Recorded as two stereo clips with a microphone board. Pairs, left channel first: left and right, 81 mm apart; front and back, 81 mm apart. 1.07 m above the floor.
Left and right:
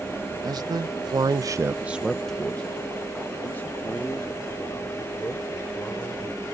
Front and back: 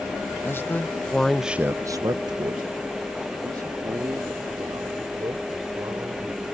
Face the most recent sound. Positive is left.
turn(degrees=145)